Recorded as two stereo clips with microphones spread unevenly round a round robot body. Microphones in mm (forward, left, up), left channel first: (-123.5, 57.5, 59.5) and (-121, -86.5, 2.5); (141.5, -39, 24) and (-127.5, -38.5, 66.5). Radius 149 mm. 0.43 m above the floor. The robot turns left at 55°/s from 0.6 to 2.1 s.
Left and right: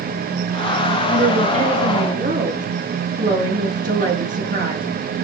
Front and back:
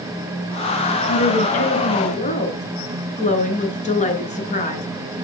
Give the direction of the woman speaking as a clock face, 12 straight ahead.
12 o'clock.